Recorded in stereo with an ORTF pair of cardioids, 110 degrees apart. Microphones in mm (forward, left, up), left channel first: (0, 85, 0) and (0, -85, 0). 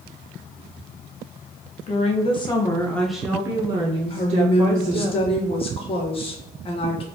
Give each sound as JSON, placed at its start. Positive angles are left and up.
{"t": 1.9, "sound": "a woman speaking", "azimuth_deg": 45, "distance_m": 1.2}
{"t": 4.1, "sound": "a woman speaking", "azimuth_deg": 35, "distance_m": 1.4}